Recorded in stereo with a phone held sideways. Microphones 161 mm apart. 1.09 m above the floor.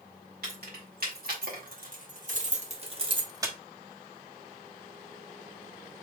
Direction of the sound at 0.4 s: 70° right (ahead or behind).